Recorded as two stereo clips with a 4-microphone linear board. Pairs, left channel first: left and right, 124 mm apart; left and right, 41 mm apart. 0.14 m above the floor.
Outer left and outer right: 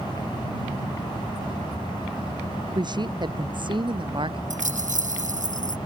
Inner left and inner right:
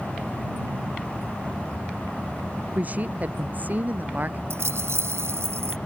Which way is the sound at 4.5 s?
80° right.